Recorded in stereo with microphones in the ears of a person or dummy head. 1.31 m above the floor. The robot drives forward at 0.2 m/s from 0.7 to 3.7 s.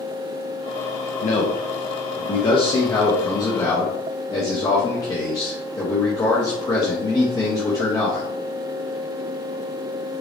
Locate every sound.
1.2 s a man speaking: 45° left (ahead or behind), 0.6 m; by 8.3 s 25° left (ahead or behind), 0.9 m